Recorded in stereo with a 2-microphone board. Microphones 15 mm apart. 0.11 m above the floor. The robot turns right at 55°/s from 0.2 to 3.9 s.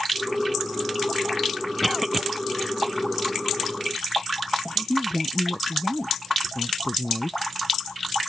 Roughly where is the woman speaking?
Left.